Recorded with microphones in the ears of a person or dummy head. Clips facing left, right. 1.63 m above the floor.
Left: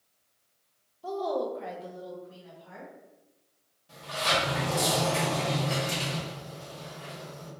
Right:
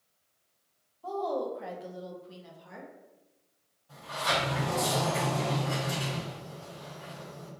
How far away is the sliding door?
About 1.5 m.